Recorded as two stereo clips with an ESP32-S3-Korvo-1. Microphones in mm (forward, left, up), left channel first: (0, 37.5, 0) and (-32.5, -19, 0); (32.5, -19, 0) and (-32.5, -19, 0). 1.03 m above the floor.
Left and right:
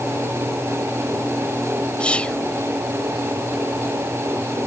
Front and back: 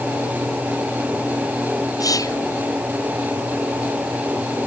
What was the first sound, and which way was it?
Whispering, 10° right.